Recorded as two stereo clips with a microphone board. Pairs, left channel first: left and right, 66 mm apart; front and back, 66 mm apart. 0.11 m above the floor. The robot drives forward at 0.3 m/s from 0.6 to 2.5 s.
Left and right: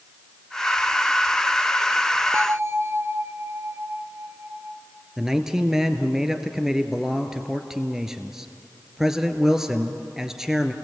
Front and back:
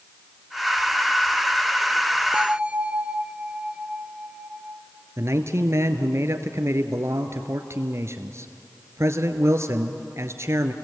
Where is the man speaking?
170° right, 1.5 m.